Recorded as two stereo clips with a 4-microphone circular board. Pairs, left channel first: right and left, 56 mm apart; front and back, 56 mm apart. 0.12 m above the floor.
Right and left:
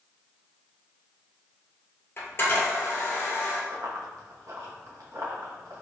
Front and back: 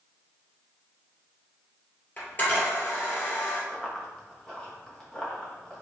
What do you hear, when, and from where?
2.2 s a camera shutter: 50° right, 1.8 m
3.7 s running footsteps: 80° left, 1.3 m; by 5.8 s 70° left, 2.5 m